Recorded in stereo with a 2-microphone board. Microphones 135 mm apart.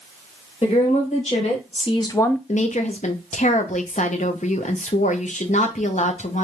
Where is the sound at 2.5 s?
60° left (ahead or behind), 0.7 m.